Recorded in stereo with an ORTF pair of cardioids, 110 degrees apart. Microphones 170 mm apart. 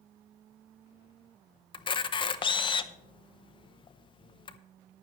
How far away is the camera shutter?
About 0.7 m.